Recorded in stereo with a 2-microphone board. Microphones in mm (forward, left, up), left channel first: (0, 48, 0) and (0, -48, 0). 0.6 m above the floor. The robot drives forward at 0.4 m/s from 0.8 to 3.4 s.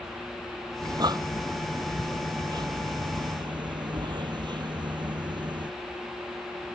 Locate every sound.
0.8 s breathing: 45° right (ahead or behind); by 5.7 s 50° right (ahead or behind)